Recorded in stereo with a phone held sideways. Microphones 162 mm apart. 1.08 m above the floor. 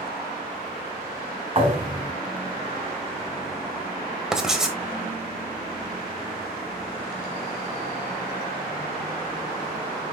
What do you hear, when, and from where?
1.6 s a thud: 35° right (ahead or behind), 5 m
4.3 s writing: 5° right (ahead or behind), 1.4 m